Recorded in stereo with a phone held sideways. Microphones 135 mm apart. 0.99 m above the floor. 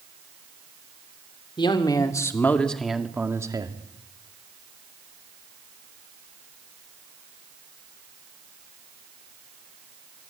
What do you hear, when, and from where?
1.6 s a man speaking: 35° left (ahead or behind), 2.5 m; by 3.8 s 35° right (ahead or behind), 2.0 m